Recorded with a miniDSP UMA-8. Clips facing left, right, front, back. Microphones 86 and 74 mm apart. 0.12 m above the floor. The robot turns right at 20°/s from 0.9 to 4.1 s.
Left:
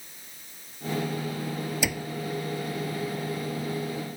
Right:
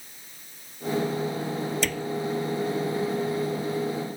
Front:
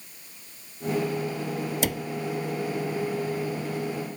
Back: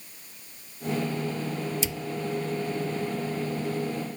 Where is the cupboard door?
10° left; by 2.1 s 15° left.